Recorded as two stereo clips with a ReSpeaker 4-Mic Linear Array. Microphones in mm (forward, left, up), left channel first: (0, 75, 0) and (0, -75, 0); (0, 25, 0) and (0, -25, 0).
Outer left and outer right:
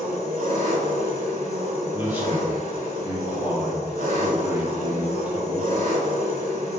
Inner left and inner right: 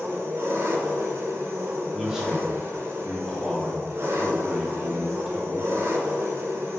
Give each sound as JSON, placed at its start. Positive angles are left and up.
{"t": 0.0, "sound": "an engine running", "side_deg": -65, "distance_m": 0.8}
{"t": 1.9, "sound": "a man speaking", "side_deg": -10, "distance_m": 1.1}